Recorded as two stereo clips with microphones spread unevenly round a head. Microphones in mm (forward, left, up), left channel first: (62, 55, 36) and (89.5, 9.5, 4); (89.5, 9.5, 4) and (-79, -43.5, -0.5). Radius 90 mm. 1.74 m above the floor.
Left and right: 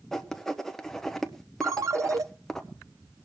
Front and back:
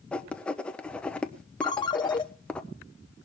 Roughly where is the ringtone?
Ahead.